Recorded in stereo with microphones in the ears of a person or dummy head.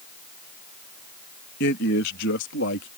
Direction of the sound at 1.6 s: 55° left (ahead or behind).